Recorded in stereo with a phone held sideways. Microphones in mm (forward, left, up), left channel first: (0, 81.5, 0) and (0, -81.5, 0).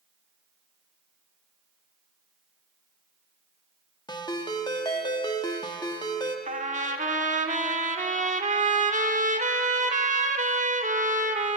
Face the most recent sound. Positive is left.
turn(degrees=-45)  # may be behind; listen again after turning